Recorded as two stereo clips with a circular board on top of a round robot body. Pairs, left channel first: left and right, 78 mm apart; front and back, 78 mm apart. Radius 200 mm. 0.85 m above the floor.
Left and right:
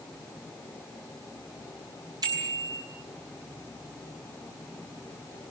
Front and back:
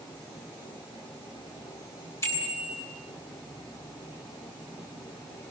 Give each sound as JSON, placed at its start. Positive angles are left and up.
{"t": 2.2, "sound": "a bicycle bell", "azimuth_deg": -55, "distance_m": 8.0}